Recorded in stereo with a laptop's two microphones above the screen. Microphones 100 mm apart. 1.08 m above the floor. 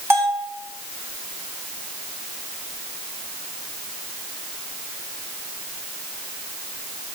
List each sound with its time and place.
0.1 s a bell: 25° right (ahead or behind), 1.7 m